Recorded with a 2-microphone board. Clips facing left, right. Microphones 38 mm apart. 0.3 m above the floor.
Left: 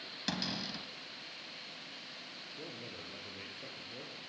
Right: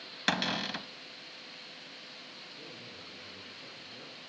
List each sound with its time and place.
0.3 s a cupboard door: 60° right (ahead or behind), 0.8 m
2.6 s a man speaking: 45° left (ahead or behind), 6 m